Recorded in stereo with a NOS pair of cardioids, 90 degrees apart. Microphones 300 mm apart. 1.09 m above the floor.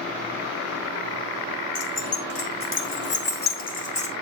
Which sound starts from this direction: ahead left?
Keys jangling, at 1.8 s.